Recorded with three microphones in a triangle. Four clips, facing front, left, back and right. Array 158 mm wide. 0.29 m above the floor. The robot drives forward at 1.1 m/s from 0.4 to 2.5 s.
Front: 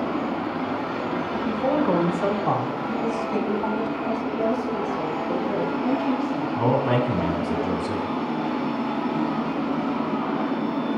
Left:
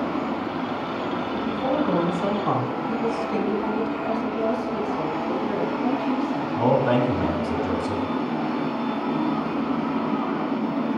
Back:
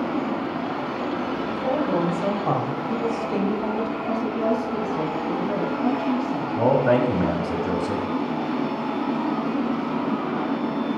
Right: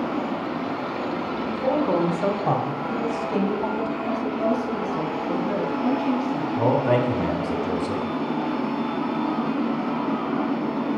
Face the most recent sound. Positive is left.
turn(degrees=170)